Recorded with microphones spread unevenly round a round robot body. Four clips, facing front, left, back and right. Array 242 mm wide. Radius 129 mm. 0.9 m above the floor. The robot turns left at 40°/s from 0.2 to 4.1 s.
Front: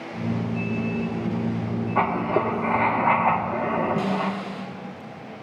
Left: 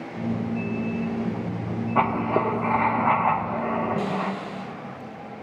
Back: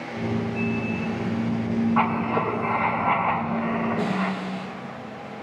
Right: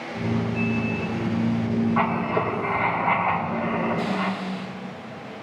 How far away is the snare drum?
About 5.5 m.